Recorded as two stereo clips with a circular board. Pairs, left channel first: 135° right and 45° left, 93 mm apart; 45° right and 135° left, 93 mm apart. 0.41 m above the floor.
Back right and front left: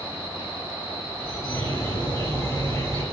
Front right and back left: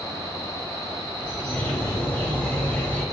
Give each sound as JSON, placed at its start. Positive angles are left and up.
{"t": 1.2, "sound": "a bird", "azimuth_deg": -105, "distance_m": 1.8}